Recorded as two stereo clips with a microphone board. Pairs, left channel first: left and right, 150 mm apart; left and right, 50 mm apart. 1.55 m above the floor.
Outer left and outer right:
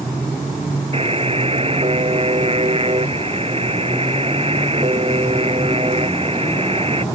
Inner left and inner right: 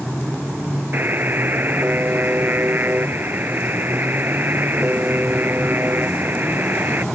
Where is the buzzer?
40° right (ahead or behind).